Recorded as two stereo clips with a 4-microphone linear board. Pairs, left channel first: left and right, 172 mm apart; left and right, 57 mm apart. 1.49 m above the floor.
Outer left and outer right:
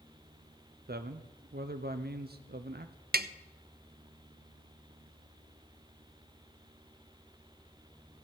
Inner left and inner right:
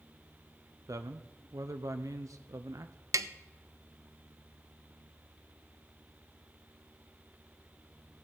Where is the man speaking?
70° right (ahead or behind), 0.6 m.